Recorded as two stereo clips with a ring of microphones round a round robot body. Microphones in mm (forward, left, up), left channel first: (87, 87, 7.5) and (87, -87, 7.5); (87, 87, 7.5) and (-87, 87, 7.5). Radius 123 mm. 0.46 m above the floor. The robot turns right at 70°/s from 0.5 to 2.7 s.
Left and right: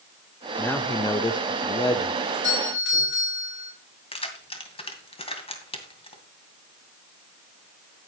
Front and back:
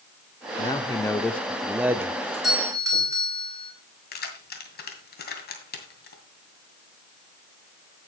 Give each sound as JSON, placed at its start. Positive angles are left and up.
{"t": 0.6, "sound": "a man speaking", "azimuth_deg": 20, "distance_m": 0.7}
{"t": 2.2, "sound": "a doorbell", "azimuth_deg": 75, "distance_m": 4.0}
{"t": 4.1, "sound": "keys jangling", "azimuth_deg": 30, "distance_m": 2.0}